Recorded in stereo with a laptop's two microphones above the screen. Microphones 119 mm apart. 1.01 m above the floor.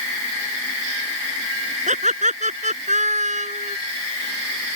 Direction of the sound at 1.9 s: 90° right.